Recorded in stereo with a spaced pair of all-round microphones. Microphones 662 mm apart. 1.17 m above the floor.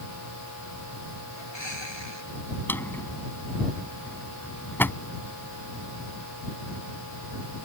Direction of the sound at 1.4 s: 40° left (ahead or behind).